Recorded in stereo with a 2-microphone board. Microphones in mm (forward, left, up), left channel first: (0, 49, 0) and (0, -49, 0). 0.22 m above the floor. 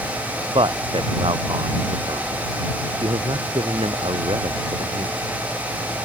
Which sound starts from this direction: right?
A man speaking, at 0.6 s.